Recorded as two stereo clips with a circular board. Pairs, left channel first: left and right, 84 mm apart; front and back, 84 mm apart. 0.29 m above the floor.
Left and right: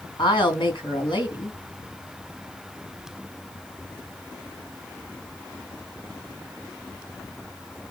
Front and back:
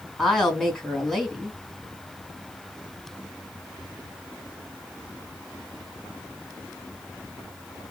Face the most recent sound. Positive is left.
turn(degrees=85)